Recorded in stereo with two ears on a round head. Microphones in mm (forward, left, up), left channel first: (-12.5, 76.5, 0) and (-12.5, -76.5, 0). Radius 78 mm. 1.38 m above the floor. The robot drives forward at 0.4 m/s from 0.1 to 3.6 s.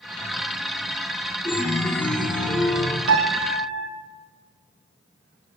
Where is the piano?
75° right (ahead or behind), 0.7 m; by 3.9 s 85° right, 0.7 m.